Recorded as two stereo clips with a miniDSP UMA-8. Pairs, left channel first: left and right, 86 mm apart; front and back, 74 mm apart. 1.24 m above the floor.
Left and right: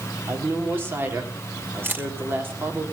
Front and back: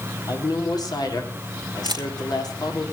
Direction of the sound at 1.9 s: 160° right.